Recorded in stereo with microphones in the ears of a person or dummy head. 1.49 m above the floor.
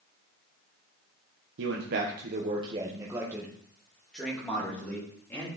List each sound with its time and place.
1.6 s a man speaking: 70° right (ahead or behind), 1.2 m; by 5.5 s 10° left (ahead or behind), 3.5 m